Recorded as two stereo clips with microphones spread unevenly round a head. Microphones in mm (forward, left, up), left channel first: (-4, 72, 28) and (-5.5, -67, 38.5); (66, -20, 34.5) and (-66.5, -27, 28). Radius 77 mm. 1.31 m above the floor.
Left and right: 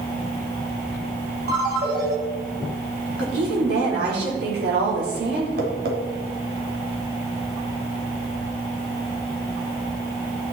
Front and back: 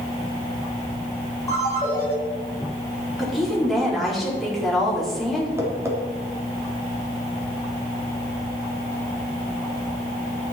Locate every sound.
1.5 s a ringtone: 65° right, 4.5 m
3.2 s a woman speaking: 90° right, 4 m
5.6 s tapping: 105° right, 3 m